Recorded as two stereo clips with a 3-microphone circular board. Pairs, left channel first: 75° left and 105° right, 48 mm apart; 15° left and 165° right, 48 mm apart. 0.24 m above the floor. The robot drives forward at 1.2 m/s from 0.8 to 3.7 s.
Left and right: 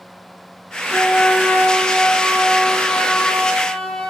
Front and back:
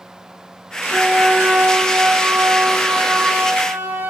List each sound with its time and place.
0.9 s a flute: 130° left, 3 m; by 4.1 s 155° left, 5.5 m